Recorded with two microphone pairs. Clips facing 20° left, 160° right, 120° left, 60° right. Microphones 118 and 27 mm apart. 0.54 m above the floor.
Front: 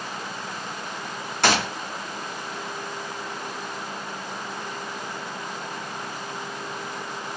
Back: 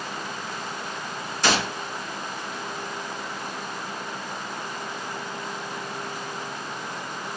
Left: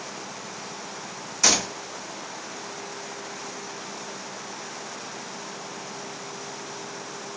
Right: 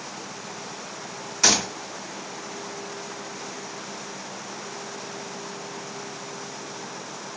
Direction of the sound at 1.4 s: 10° left.